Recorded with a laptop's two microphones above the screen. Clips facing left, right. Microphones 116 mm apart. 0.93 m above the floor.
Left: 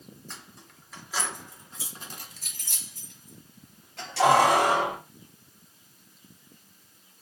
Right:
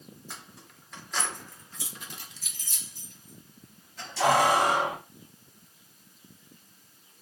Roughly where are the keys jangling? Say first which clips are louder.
Right 1 dB; centre.